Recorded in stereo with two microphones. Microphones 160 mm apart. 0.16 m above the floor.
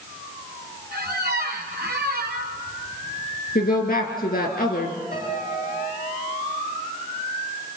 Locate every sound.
0.9 s a squeak: 80° right, 2.5 m
3.5 s a woman speaking: 65° left (ahead or behind), 3 m
5.1 s a piano: 75° left (ahead or behind), 7.5 m